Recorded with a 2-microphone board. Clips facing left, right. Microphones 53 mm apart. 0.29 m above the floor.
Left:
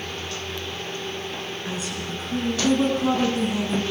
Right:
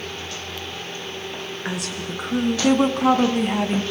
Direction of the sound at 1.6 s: 70° right (ahead or behind).